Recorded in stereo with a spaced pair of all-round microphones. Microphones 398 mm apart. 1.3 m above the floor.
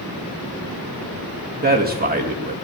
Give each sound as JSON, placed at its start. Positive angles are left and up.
{"t": 1.6, "sound": "a man speaking", "side_deg": -25, "distance_m": 2.0}